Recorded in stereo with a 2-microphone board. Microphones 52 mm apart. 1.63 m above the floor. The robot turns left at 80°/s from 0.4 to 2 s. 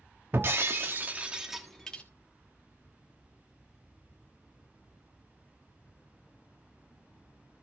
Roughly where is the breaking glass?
Right.